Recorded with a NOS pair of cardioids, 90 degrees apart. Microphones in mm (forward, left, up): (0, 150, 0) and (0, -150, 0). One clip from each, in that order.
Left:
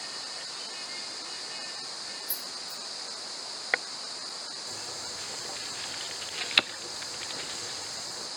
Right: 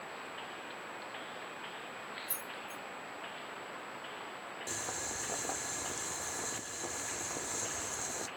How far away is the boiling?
About 0.6 m.